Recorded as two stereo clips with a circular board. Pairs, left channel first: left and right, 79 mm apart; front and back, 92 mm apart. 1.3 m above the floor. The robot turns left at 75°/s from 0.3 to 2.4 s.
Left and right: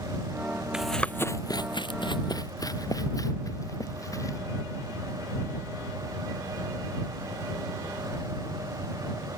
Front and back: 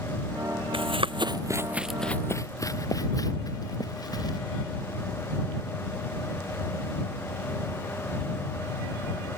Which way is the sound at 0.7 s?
170° right.